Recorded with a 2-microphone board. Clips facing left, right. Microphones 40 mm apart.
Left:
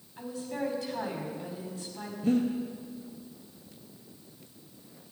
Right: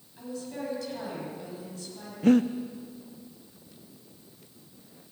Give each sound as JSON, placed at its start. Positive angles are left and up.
{"t": 0.2, "sound": "a woman speaking", "side_deg": 20, "distance_m": 5.0}
{"t": 2.2, "sound": "breathing", "side_deg": -80, "distance_m": 0.6}